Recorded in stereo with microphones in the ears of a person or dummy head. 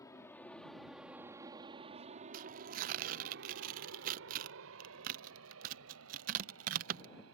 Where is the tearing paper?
45° right (ahead or behind).